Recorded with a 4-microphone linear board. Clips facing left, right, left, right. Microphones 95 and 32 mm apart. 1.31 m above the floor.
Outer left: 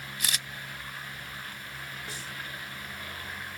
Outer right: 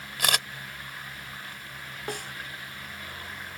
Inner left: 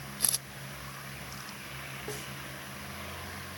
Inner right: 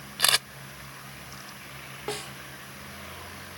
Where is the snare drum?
60° right (ahead or behind).